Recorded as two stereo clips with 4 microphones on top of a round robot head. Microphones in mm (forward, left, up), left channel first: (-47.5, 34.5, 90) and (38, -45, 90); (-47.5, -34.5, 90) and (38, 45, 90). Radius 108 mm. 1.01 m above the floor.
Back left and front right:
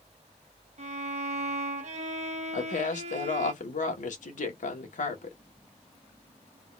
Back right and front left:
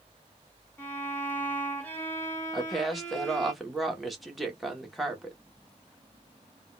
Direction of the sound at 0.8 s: 60° right.